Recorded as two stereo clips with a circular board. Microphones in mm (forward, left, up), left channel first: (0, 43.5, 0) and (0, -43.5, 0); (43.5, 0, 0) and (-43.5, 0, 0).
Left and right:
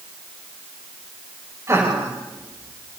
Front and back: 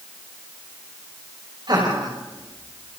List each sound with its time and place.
1.7 s laughter: 145° right, 5.5 m; by 3.0 s 140° right, 4.5 m